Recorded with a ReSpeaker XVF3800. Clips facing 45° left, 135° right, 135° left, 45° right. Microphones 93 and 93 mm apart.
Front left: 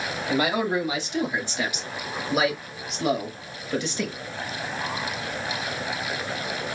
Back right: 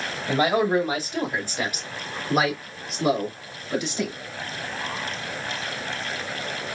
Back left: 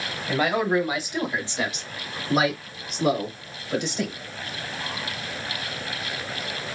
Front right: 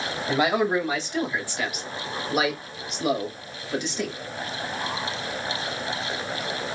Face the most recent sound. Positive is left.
turn(degrees=170)